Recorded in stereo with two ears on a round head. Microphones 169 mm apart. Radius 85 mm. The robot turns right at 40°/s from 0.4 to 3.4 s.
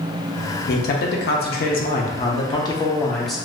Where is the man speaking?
75° left, 0.6 m; by 3.5 s straight behind, 0.6 m.